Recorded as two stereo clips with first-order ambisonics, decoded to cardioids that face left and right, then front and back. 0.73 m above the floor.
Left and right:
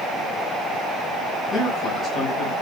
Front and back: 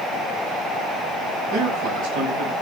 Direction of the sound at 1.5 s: 175° left.